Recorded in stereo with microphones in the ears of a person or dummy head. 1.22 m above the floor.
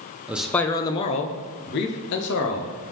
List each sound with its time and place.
0.3 s a man speaking: centre (ahead or behind), 0.7 m; by 2.8 s 70° left (ahead or behind), 1.4 m